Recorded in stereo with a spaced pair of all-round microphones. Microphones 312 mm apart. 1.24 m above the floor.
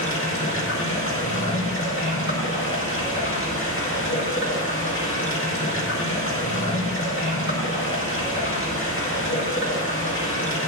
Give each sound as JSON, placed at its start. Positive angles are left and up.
{"t": 0.0, "sound": "running water", "side_deg": 40, "distance_m": 1.9}